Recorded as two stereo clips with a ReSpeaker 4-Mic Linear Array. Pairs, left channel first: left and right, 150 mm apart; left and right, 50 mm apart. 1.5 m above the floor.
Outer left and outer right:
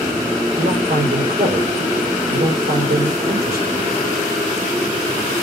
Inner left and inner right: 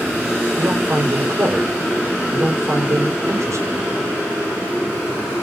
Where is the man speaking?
80° right, 3.5 m.